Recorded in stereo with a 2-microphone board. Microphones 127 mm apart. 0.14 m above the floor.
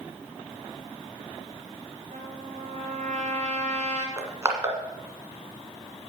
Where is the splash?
I don't hear a splash.